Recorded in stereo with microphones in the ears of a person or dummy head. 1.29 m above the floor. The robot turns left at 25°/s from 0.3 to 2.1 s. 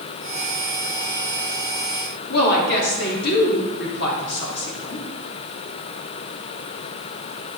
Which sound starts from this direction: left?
A woman speaking, at 2.3 s.